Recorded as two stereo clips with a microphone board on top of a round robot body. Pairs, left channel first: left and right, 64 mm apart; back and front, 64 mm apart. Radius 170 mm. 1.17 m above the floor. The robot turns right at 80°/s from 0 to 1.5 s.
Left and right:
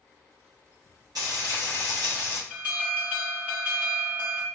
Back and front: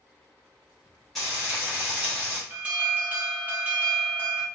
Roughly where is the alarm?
Ahead right.